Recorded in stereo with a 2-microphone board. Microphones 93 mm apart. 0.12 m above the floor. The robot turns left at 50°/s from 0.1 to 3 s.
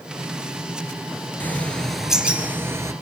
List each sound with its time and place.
1.4 s a bird: 30° left, 2 m; by 2.9 s 45° right, 2 m